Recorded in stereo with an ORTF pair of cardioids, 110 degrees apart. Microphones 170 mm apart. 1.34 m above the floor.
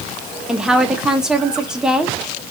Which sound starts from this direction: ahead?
A woman speaking, at 0.5 s.